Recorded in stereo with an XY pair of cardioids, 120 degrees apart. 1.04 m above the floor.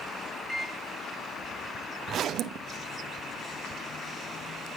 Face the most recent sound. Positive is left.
turn(degrees=-55)